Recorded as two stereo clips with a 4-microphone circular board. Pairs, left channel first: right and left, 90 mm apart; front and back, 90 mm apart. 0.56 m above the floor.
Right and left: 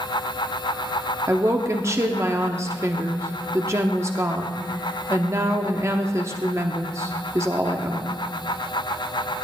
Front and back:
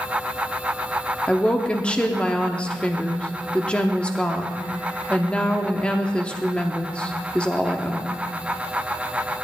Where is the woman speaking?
70° left, 1.0 m.